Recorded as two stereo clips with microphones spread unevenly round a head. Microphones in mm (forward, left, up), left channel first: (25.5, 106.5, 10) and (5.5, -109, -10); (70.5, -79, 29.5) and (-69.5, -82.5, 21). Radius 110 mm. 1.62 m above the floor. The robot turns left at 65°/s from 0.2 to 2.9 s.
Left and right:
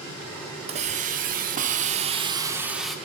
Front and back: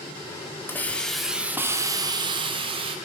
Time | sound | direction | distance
0.7 | a hiss | 50° right | 1.3 m